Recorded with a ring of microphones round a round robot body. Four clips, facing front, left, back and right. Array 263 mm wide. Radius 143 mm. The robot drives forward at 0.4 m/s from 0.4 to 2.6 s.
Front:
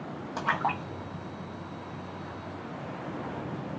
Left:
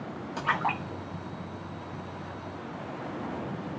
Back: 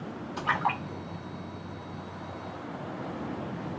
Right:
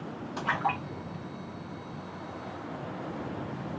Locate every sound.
0.4 s a splash: 20° left, 1.2 m; by 2.2 s 60° left, 0.7 m